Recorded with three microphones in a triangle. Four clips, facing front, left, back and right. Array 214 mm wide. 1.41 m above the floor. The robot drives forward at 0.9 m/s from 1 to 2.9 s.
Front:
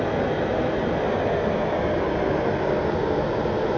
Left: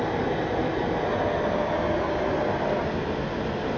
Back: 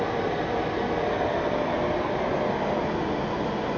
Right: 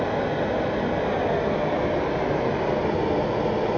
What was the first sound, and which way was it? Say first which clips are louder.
Running water: right 2 dB, front 3 dB; 30° right.